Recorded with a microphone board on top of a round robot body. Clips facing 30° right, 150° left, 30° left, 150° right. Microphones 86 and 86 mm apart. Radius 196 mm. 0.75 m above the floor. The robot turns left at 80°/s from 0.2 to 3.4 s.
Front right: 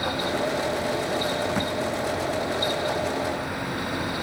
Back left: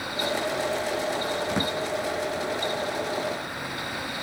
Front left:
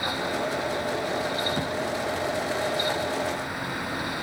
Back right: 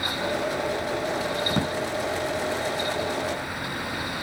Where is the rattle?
No rattle in this recording.